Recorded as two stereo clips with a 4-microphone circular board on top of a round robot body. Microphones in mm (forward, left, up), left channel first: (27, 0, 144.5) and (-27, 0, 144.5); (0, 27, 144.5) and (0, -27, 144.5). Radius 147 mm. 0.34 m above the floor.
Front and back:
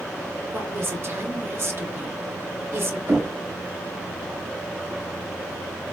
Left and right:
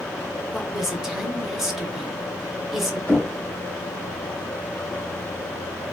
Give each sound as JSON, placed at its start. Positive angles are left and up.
{"t": 0.5, "sound": "a woman speaking", "azimuth_deg": -175, "distance_m": 1.1}
{"t": 3.1, "sound": "knocking", "azimuth_deg": 150, "distance_m": 1.9}